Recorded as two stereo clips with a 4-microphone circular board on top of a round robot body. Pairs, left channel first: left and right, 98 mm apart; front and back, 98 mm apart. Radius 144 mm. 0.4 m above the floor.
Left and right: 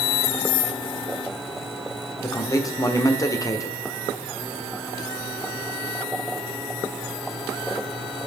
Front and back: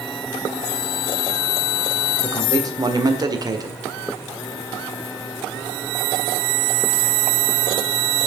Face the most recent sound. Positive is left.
turn(degrees=140)